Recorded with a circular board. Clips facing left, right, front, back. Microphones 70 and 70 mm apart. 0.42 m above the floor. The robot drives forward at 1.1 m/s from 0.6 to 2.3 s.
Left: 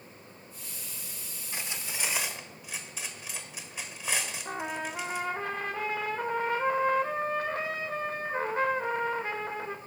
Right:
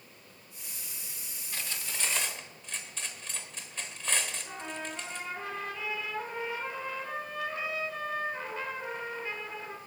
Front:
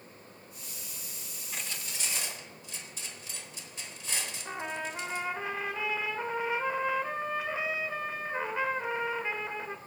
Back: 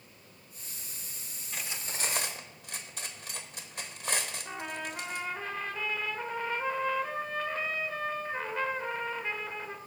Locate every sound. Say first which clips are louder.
1.5 s cutlery clinking: left 1 dB, back 1 dB; 75° left, 0.5 m; by 5.3 s 170° left, 1.0 m
4.5 s a trumpet: left 5 dB, front 2 dB; 75° left, 0.8 m